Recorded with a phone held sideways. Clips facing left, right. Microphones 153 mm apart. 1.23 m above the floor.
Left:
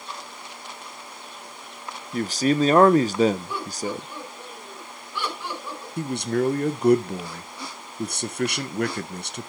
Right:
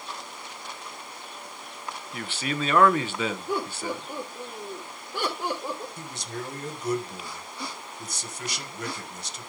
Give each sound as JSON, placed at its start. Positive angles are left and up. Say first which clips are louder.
{"t": 2.1, "sound": "a man speaking", "louder": "left 11 dB", "side_deg": 40, "distance_m": 0.9}
{"t": 3.5, "sound": "laughter", "louder": "even", "side_deg": -50, "distance_m": 4.0}
{"t": 6.0, "sound": "a man speaking", "louder": "left 13 dB", "side_deg": 65, "distance_m": 1.3}